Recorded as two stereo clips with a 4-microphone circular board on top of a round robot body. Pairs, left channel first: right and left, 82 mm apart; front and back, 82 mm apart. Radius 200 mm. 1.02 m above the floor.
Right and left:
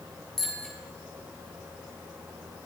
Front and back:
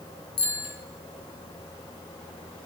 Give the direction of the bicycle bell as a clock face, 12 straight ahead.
12 o'clock.